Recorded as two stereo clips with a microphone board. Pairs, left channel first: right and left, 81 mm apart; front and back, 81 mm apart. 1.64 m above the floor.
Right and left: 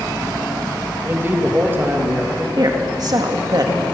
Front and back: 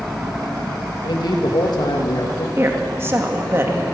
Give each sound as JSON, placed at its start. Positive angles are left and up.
{"t": 1.0, "sound": "a man speaking", "azimuth_deg": 25, "distance_m": 2.5}
{"t": 2.6, "sound": "a woman speaking", "azimuth_deg": 125, "distance_m": 2.0}